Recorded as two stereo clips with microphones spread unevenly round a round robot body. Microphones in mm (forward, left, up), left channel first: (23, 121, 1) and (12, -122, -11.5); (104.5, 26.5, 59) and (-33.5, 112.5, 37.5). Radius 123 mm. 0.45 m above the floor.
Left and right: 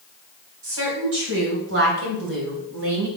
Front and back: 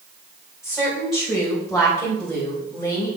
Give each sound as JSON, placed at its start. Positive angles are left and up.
{"t": 0.6, "sound": "a woman speaking", "azimuth_deg": -130, "distance_m": 3.5}